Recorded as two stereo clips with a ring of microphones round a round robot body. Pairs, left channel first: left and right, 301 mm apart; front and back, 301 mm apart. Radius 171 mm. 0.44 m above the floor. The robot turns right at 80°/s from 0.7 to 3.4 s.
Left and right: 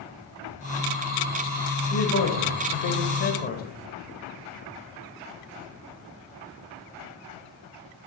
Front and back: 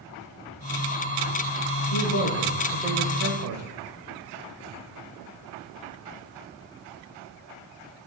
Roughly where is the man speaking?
Ahead left.